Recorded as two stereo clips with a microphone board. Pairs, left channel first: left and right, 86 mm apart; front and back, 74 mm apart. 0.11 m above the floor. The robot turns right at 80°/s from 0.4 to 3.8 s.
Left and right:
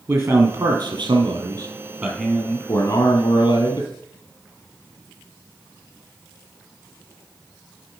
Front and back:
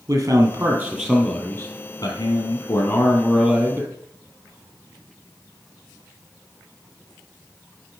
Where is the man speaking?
140° right, 2.5 m; by 3.9 s 130° left, 2.5 m.